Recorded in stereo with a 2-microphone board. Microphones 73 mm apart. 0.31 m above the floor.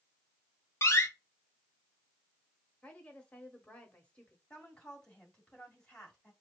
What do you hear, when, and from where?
0.8 s a door slam: 40° left (ahead or behind), 1.0 m
2.8 s a woman speaking: 20° left (ahead or behind), 1.4 m
4.5 s a woman speaking: 10° left (ahead or behind), 1.7 m